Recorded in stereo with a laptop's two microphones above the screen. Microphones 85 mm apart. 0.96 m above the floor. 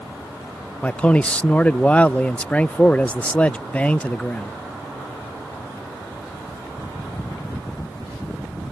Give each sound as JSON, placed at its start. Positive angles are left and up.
{"t": 0.8, "sound": "a man speaking", "side_deg": 15}